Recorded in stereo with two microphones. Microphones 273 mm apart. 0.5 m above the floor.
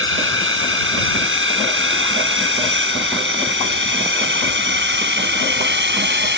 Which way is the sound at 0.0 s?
50° right (ahead or behind).